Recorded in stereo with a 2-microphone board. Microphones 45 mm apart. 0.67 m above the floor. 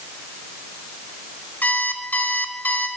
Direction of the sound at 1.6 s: 35° left (ahead or behind).